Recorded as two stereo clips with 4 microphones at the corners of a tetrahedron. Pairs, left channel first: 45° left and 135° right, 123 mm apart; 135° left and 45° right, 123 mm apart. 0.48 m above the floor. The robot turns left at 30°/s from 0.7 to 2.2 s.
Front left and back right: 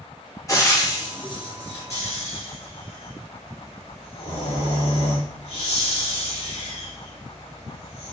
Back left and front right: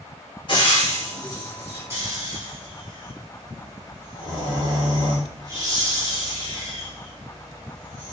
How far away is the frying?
About 1.1 m.